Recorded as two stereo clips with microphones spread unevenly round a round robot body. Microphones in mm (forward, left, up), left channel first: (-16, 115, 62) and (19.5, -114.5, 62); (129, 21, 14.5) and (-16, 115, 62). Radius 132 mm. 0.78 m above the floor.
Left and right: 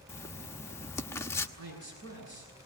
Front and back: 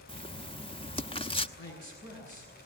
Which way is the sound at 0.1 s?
20° left.